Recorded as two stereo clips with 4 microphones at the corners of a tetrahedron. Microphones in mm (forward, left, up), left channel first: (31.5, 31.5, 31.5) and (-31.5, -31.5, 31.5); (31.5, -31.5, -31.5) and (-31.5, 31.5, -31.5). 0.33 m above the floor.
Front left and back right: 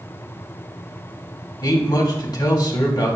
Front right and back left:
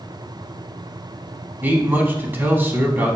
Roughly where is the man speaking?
Left.